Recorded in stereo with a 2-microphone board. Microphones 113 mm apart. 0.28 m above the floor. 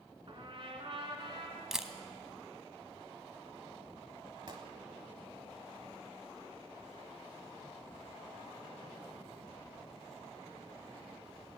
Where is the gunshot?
45° right (ahead or behind), 1.0 m.